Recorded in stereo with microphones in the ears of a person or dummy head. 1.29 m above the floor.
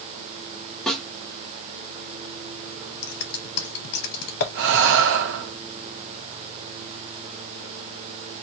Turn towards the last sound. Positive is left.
turn(degrees=-55)  # may be behind; listen again after turning